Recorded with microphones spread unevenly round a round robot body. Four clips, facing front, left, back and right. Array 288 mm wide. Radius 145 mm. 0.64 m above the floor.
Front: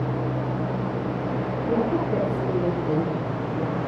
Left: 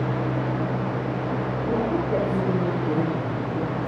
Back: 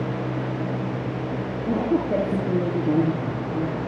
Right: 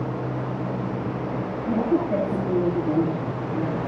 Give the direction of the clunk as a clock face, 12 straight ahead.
No clunk in this recording.